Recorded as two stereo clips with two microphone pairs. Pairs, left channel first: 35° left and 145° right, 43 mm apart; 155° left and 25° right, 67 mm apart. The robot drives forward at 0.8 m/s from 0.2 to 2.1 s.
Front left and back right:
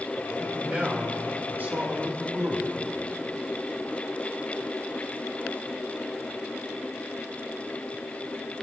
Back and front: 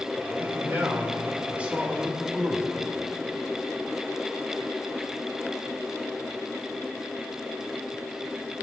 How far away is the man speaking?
About 3 m.